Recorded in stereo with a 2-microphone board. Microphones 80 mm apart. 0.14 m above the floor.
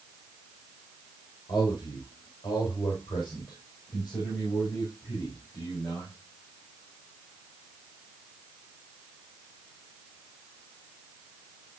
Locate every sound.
1.5 s a man speaking: 65° left (ahead or behind), 4.5 m; by 6.1 s 60° left (ahead or behind), 7.5 m